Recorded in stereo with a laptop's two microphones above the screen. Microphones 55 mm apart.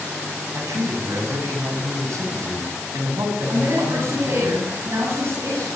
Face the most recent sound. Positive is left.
turn(degrees=-50)  # may be behind; listen again after turning